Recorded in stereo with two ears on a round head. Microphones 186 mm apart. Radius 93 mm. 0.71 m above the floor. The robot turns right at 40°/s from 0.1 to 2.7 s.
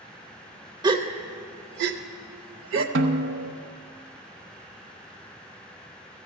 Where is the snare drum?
65° right (ahead or behind), 1.0 m.